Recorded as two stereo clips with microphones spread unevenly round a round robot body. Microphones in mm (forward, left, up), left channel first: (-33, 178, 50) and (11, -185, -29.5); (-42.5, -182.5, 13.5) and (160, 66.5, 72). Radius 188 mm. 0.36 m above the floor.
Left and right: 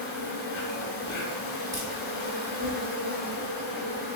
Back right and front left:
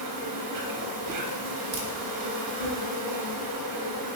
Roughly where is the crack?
Ahead.